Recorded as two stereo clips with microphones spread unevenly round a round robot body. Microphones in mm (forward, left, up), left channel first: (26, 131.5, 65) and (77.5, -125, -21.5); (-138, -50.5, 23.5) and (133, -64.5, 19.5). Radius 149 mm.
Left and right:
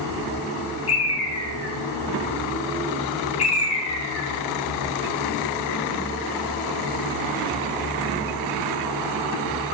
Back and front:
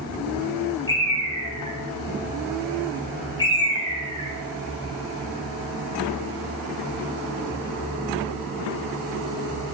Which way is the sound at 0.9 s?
115° left.